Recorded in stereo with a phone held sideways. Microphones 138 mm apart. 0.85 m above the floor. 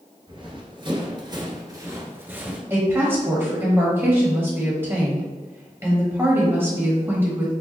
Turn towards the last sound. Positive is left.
turn(degrees=-15)  # may be behind; listen again after turning